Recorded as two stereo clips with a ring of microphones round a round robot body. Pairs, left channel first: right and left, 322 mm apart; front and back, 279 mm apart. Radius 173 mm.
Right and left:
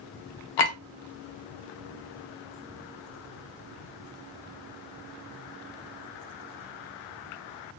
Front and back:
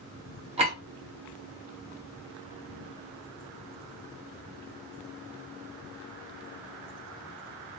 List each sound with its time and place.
0.6 s a clink: 110° right, 0.8 m